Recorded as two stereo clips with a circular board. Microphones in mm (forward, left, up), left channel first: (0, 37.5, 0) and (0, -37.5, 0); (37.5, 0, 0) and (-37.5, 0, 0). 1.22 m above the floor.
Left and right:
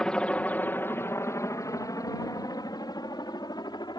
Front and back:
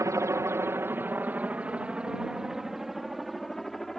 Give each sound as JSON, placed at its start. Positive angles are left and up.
{"t": 0.0, "sound": "a helicopter", "azimuth_deg": 165}